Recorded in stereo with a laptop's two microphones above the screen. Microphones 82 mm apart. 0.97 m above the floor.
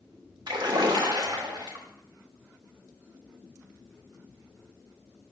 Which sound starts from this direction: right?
A splash, at 0.5 s.